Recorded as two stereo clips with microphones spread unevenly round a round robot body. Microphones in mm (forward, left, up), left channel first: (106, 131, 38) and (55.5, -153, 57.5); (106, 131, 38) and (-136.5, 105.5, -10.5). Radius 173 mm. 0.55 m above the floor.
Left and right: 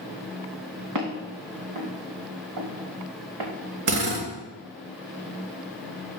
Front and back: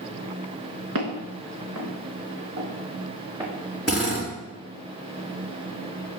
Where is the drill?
85° right, 3.5 m.